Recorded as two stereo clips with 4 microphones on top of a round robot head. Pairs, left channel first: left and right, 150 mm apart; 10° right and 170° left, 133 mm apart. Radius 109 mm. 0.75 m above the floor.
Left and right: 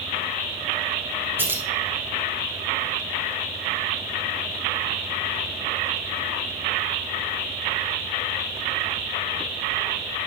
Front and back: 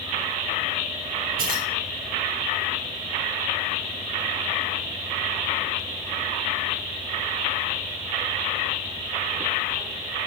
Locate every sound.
1.4 s keys jangling: 165° right, 2.0 m